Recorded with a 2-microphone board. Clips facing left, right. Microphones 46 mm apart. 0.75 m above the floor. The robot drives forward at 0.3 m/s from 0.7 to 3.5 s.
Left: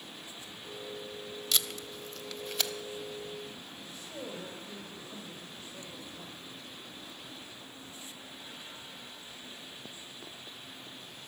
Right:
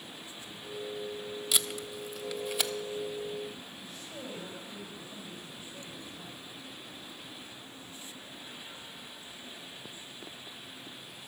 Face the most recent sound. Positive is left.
turn(degrees=35)  # may be behind; listen again after turning